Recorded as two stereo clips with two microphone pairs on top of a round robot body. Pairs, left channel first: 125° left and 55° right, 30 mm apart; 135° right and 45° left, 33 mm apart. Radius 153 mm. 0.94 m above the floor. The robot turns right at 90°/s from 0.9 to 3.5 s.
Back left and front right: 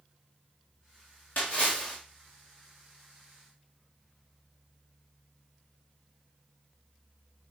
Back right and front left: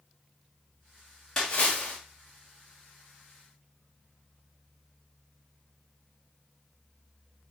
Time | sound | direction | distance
1.4 | a splash | 150° left | 1.7 m